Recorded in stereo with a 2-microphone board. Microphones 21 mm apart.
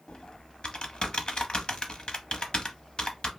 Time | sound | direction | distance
0.1 | typing on a keyboard | 45° left (ahead or behind) | 0.8 m